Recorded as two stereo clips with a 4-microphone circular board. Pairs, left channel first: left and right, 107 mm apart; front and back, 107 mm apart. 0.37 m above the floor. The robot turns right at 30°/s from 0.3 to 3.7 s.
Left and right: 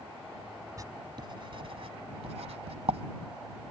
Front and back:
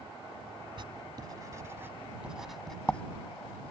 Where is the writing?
145° right; by 3.0 s 75° right.